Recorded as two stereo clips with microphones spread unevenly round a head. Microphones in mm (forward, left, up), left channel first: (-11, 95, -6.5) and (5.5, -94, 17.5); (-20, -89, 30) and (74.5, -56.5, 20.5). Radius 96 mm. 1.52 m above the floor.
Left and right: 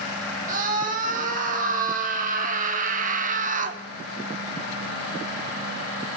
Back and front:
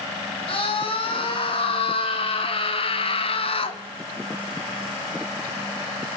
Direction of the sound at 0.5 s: 135° right.